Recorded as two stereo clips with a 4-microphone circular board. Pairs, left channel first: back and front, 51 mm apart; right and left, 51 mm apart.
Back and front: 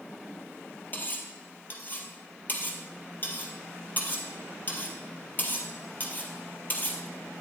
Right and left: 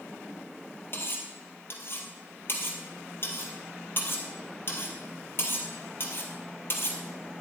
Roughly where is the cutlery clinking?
Behind right.